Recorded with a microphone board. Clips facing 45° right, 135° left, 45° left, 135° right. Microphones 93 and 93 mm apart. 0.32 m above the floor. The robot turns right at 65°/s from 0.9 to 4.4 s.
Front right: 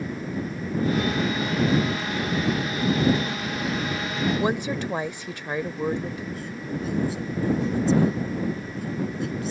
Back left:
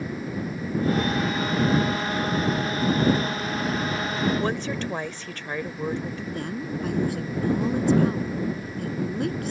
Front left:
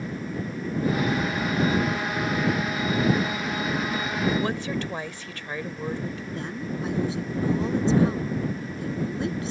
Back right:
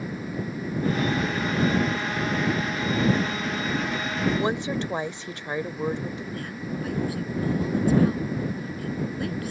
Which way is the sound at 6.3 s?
110° left.